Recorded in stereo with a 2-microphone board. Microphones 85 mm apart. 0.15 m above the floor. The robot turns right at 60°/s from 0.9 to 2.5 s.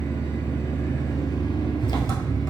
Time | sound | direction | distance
0.0 | an engine running | 35° left | 1.1 m